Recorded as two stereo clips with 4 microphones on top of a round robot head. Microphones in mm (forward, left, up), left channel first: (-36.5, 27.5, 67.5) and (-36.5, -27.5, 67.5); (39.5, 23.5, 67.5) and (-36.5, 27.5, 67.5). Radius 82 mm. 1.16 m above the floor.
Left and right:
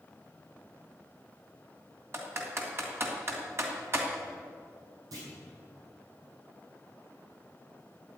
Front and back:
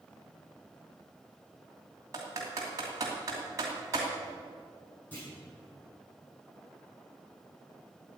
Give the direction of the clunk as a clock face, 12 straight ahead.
3 o'clock.